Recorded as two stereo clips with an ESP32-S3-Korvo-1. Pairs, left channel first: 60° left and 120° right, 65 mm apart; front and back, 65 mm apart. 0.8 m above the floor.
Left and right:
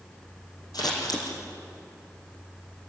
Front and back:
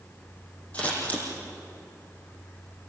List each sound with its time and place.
0.7 s scissors: 70° left, 6 m